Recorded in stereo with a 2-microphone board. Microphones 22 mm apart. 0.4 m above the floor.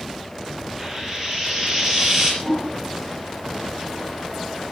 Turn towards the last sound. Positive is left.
turn(degrees=-35)  # may be behind; listen again after turning